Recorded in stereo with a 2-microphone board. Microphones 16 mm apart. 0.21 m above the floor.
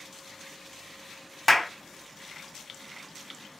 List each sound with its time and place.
1.5 s a clap: 15° left (ahead or behind), 0.8 m